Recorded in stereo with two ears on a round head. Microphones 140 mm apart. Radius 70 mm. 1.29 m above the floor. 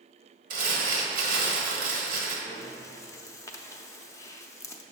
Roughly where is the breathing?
Centre.